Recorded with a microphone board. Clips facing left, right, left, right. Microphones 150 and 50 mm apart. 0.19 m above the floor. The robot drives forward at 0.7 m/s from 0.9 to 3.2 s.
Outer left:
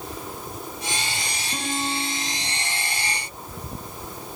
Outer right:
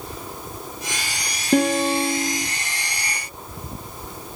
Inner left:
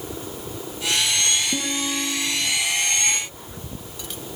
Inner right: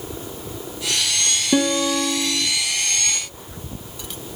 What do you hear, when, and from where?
1.5 s a guitar: 65° right (ahead or behind), 4.5 m; by 2.5 s 70° right (ahead or behind), 4 m